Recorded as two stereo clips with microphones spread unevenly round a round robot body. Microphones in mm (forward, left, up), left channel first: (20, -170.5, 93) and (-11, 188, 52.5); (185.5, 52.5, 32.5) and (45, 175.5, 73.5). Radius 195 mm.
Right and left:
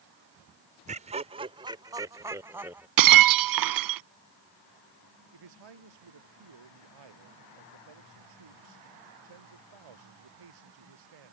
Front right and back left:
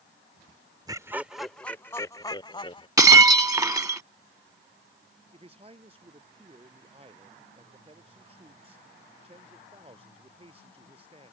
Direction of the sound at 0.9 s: 65° left.